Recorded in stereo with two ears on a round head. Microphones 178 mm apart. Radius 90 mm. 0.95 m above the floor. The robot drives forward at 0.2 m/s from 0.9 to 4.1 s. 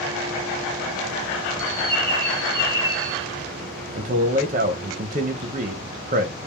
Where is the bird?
30° right (ahead or behind), 0.8 m; by 3.3 s 20° right (ahead or behind), 1.1 m.